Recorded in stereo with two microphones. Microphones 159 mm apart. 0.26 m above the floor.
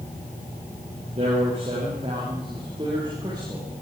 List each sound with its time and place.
1.2 s a man speaking: 45° right (ahead or behind), 9 m; by 3.8 s 25° right (ahead or behind), 8 m